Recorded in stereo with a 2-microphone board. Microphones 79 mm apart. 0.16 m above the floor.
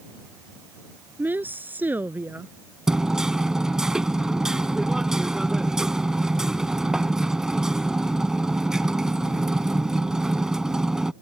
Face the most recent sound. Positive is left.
turn(degrees=-10)  # may be behind; listen again after turning